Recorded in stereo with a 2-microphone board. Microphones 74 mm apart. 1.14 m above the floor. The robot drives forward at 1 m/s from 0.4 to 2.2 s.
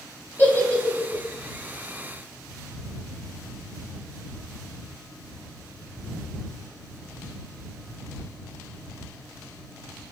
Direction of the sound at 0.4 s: 25° left (ahead or behind).